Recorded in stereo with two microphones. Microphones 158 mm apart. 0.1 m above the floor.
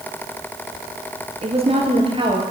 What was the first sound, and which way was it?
A woman speaking, 40° right (ahead or behind).